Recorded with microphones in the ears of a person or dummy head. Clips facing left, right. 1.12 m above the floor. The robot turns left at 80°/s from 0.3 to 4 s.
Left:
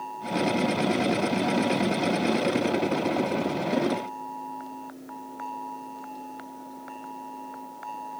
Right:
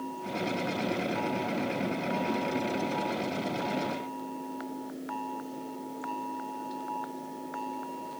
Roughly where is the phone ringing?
I don't hear a phone ringing.